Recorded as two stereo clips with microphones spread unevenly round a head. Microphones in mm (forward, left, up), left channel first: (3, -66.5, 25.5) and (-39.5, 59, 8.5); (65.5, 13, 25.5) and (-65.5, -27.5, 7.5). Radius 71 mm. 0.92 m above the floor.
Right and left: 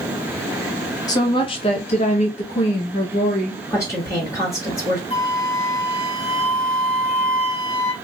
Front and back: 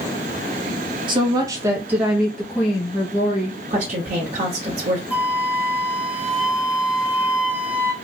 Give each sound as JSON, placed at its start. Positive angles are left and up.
{"t": 1.1, "sound": "a woman speaking", "azimuth_deg": -130, "distance_m": 1.0}
{"t": 3.7, "sound": "a woman speaking", "azimuth_deg": -140, "distance_m": 1.4}
{"t": 5.1, "sound": "a flute", "azimuth_deg": -95, "distance_m": 1.0}